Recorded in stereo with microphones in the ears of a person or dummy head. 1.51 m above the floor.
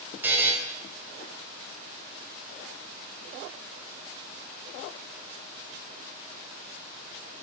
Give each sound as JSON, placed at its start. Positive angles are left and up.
{"t": 0.2, "sound": "a buzzer", "side_deg": -10, "distance_m": 0.8}